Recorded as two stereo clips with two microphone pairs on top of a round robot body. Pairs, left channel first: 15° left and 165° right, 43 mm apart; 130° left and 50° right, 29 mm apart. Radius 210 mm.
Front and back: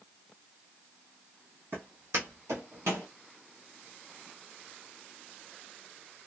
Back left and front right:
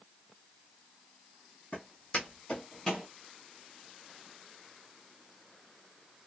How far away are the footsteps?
About 1.4 m.